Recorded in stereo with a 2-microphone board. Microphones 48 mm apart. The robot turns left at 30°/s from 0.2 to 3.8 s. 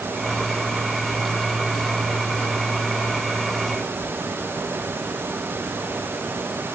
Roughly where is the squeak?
I don't hear a squeak.